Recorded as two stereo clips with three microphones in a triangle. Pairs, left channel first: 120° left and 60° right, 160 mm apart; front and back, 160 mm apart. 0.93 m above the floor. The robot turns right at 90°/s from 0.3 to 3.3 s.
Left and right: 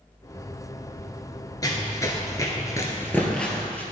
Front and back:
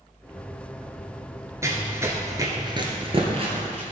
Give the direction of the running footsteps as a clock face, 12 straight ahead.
7 o'clock.